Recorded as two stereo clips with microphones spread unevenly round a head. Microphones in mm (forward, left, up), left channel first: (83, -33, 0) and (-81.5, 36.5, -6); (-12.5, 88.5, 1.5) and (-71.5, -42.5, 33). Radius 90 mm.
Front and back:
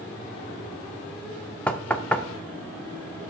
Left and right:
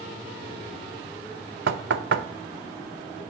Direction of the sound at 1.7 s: 105° right.